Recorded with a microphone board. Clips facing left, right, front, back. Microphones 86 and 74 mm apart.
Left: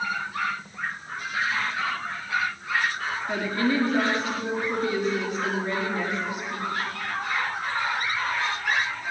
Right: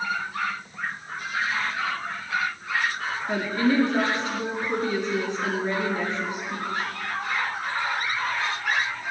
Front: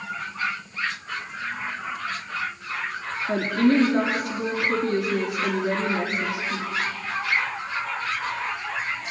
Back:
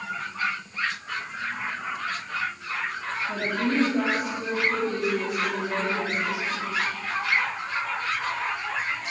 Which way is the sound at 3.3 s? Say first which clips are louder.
Right 2 dB, front 7 dB; 20° right.